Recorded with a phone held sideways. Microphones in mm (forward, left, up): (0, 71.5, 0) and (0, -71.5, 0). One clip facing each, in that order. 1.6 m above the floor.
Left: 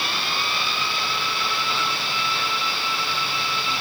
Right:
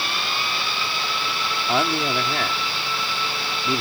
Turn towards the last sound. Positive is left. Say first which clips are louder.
# right 7 dB
turn(degrees=-80)